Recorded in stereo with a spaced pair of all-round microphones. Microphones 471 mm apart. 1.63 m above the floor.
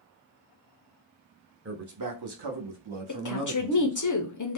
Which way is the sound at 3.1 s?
40° left (ahead or behind).